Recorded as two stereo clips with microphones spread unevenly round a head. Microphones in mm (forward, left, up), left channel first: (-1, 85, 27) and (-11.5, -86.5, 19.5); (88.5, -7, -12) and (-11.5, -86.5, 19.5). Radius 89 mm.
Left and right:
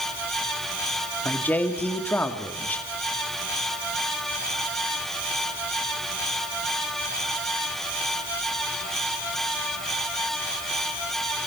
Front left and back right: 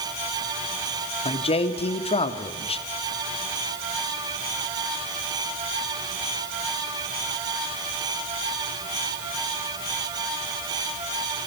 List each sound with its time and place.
1.2 s a man speaking: 5° left, 2.5 m